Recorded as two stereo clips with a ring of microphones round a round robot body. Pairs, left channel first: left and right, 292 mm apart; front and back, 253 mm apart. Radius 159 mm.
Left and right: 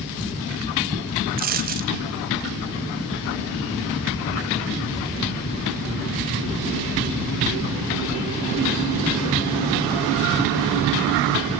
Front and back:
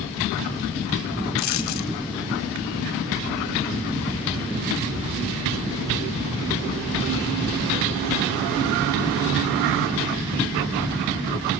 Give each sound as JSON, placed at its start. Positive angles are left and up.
{"t": 1.4, "sound": "a dropped coin", "azimuth_deg": -30, "distance_m": 1.3}